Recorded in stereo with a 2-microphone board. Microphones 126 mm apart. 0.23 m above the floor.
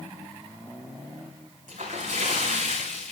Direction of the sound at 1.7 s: 85° right.